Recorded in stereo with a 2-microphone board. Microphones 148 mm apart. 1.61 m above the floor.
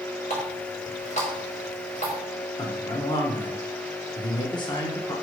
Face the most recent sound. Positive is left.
turn(degrees=30)  # may be behind; listen again after turning